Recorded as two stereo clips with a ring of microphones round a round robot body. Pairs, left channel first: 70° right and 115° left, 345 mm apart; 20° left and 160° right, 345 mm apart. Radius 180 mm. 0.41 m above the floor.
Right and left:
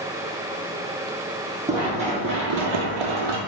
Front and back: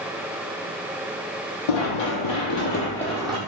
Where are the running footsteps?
30° left, 1.1 m; by 3.4 s 130° left, 0.9 m.